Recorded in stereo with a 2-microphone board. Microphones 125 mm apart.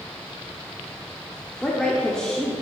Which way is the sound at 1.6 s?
5° left (ahead or behind).